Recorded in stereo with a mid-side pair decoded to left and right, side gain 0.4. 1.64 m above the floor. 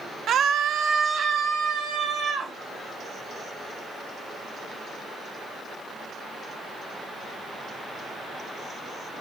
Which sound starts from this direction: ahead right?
A scream, at 0.3 s.